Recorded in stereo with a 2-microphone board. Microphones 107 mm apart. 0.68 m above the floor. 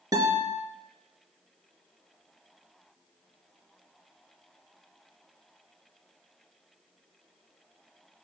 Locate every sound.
0.1 s a guitar: 35° right (ahead or behind), 1.6 m